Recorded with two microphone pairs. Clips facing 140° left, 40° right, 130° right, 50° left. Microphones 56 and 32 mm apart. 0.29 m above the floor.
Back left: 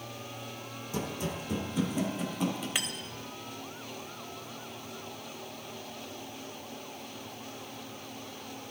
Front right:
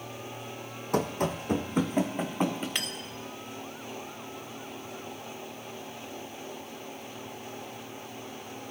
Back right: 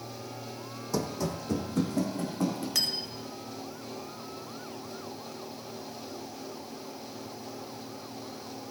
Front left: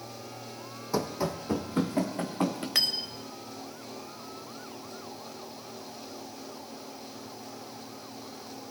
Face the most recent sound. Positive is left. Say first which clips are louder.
# even, front left 2 dB
turn(degrees=60)